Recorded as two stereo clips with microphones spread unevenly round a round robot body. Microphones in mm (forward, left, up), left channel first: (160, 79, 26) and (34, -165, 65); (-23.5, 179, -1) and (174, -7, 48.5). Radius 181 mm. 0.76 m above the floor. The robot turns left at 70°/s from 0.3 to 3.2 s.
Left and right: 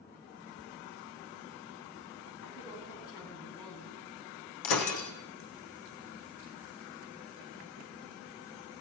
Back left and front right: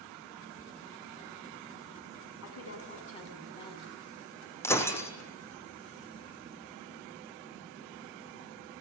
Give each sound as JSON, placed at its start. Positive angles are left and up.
{"t": 2.4, "sound": "a woman speaking", "azimuth_deg": 120, "distance_m": 7.5}
{"t": 4.6, "sound": "breaking glass", "azimuth_deg": 55, "distance_m": 3.5}